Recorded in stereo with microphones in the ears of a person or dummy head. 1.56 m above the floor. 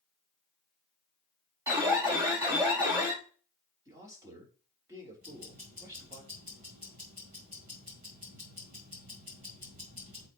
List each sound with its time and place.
1.7 s an alarm: 15° right (ahead or behind), 2.5 m
3.9 s a man speaking: 20° right (ahead or behind), 3.5 m
5.2 s ticking: 35° right (ahead or behind), 1.5 m